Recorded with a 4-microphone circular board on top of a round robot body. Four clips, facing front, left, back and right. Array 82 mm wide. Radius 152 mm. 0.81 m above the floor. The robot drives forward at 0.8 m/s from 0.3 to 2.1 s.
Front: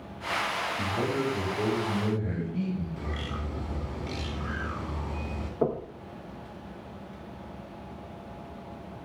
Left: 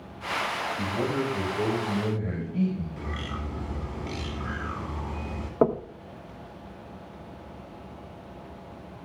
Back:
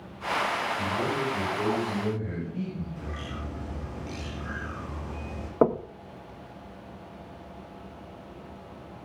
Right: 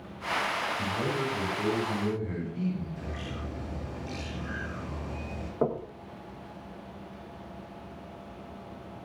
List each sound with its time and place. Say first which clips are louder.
0.8 s a man speaking: left 3 dB, even; 80° left, 5 m; by 2.9 s 95° left, 5 m
3.0 s a bird: left 3 dB, front 2 dB; 80° left, 3.5 m
5.6 s knocking: left 6 dB, back 5 dB; 150° left, 1.0 m